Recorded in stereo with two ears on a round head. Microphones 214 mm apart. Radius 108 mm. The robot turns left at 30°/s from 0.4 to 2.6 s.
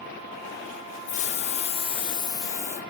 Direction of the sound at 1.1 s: 65° left.